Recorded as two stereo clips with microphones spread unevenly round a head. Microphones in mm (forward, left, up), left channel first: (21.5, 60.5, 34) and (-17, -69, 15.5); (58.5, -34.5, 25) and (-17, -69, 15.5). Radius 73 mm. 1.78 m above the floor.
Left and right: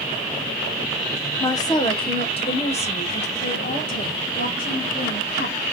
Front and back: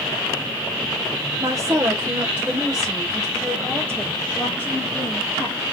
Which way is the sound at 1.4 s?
140° left.